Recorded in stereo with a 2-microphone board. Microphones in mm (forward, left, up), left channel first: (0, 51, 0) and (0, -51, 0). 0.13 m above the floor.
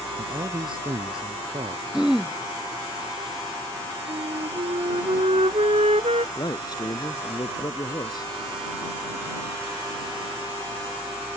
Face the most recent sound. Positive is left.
turn(degrees=40)  # may be behind; listen again after turning